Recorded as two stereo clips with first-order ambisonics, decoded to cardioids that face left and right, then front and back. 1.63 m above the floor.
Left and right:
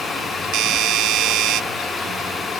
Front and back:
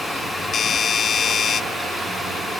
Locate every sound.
0.5 s a doorbell: 60° right